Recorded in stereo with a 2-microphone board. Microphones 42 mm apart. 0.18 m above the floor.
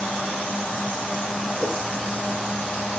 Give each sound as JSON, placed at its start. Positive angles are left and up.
{"t": 1.6, "sound": "a whoosh", "side_deg": 30, "distance_m": 2.0}